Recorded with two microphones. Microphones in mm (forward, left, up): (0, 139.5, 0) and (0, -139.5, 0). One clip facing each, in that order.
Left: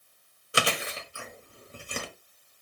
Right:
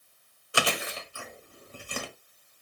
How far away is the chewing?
About 1.5 m.